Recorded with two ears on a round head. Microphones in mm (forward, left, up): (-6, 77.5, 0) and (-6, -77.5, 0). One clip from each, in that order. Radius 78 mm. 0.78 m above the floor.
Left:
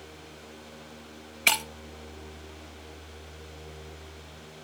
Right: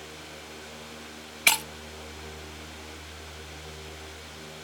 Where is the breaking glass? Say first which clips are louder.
Right 1 dB; 10° right (ahead or behind), 0.6 m.